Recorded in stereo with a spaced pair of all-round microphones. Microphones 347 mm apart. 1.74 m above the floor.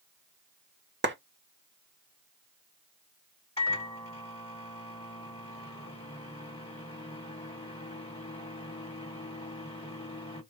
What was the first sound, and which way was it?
A clap, 35° right (ahead or behind).